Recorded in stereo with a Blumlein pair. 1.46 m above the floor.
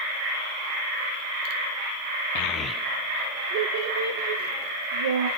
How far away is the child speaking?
About 0.8 m.